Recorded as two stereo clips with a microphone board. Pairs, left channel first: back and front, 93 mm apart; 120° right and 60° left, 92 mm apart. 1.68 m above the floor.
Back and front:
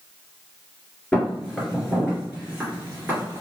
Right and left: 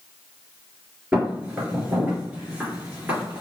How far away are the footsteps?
About 1.7 m.